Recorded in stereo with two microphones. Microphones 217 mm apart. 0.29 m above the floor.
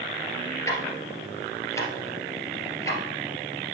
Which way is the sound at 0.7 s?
15° left (ahead or behind).